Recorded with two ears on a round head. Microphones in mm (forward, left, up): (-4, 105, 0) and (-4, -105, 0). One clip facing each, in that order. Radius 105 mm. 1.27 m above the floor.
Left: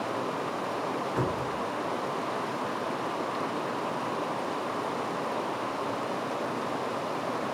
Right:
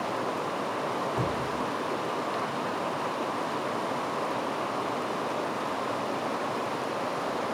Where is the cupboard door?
65° left (ahead or behind), 2 m.